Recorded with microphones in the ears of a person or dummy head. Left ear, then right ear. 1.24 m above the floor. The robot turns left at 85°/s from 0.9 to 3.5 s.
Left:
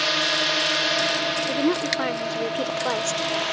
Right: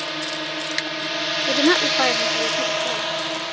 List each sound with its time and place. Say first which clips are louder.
0.0 s a drone: left 6 dB; 30° left; by 3.5 s 165° left
1.5 s a woman speaking: right 5 dB; 100° right; by 3.1 s 120° left